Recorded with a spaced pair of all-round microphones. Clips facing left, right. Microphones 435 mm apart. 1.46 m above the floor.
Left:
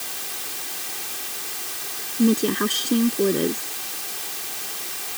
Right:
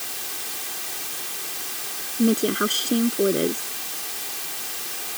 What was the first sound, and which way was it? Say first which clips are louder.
A woman speaking: left 1 dB; 5° left (ahead or behind).